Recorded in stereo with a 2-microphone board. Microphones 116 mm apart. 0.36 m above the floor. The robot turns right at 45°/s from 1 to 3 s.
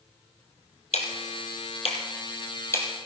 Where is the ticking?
80° left, 1.8 m; by 2.9 s 15° left (ahead or behind), 1.8 m.